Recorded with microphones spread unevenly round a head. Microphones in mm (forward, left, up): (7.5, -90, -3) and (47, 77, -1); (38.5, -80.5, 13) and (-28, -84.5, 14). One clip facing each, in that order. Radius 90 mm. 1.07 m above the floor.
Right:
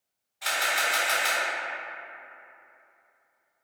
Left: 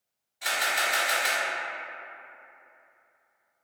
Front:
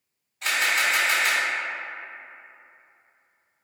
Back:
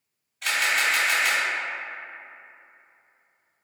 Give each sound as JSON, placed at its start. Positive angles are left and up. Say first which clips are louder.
{"t": 0.4, "sound": "a camera shutter", "louder": "even, even", "azimuth_deg": 20, "distance_m": 1.9}